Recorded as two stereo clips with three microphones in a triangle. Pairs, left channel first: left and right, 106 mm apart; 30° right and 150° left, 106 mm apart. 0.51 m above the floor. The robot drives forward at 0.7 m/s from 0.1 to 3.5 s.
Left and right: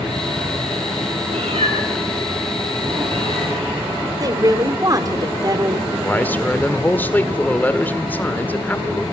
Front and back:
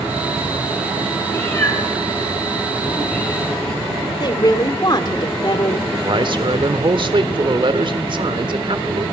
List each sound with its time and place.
1.3 s a cat meowing: 95° right, 7.5 m; by 3.6 s 105° right, 8 m
4.2 s a woman speaking: 55° right, 1.5 m
6.0 s a man speaking: 155° left, 1.7 m